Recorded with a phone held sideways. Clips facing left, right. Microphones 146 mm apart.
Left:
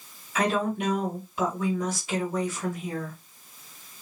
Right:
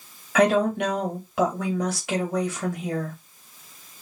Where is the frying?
I don't hear frying.